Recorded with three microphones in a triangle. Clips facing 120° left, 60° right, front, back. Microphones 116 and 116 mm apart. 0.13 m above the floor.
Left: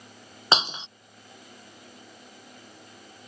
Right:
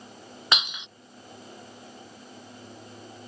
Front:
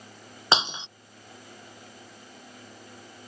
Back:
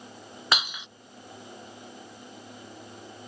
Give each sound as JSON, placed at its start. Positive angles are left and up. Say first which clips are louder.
{"t": 0.5, "sound": "breaking glass", "louder": "left 5 dB, front 4 dB", "azimuth_deg": 60}